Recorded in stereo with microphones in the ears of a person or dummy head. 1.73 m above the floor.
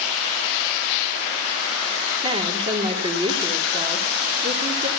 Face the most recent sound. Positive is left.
turn(degrees=-30)  # may be behind; listen again after turning